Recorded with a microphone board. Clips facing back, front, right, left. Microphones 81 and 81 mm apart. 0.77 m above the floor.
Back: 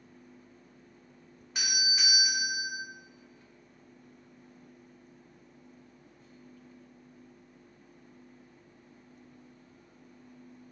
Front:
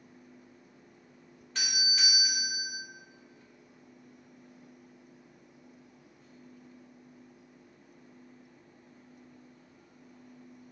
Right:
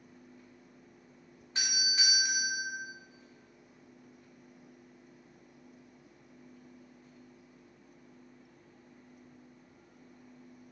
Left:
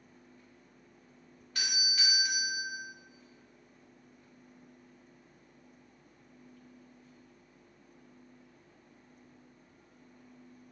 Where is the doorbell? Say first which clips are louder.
Back 1 dB, right 2 dB; 115° right, 0.9 m.